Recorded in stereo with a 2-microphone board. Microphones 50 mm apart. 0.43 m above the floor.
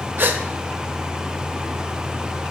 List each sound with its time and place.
0.2 s a gasp: 40° right (ahead or behind), 0.9 m